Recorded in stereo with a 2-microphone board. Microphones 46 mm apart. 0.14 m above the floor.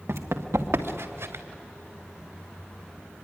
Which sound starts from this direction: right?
Running footsteps, at 0.1 s.